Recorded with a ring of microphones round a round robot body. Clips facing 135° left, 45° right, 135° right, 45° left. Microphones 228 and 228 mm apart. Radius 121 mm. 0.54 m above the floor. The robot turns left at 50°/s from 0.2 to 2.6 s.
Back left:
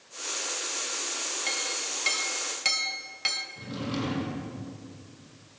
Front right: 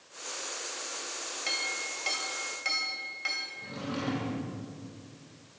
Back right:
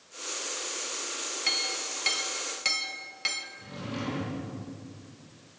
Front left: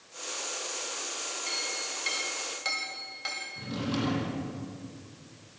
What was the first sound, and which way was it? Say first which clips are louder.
A clink: back left 3 dB, back right 1 dB; 130° right.